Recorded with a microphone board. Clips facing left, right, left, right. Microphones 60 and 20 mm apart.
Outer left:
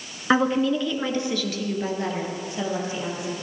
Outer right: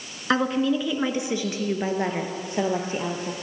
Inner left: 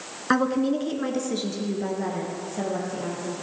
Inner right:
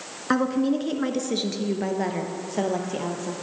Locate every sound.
0.3 s a woman speaking: 10° left (ahead or behind), 1.1 m; by 3.3 s 40° right (ahead or behind), 2.5 m